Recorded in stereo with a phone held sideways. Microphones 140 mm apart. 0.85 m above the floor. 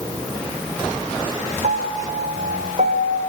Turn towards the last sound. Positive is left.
turn(degrees=-70)  # may be behind; listen again after turning